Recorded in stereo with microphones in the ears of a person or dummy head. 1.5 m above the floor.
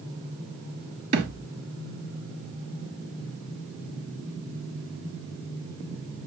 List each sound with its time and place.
1.1 s a thud: 45° right (ahead or behind), 2.5 m